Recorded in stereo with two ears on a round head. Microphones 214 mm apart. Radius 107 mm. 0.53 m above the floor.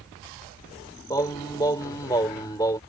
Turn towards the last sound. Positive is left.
turn(degrees=15)  # may be behind; listen again after turning